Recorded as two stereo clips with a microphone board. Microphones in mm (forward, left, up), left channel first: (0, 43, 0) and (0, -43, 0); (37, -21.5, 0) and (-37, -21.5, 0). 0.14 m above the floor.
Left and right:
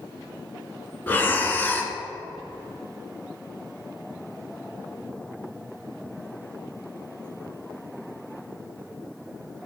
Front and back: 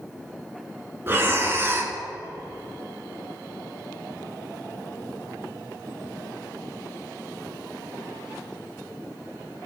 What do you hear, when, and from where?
1.1 s breathing: 145° left, 1.0 m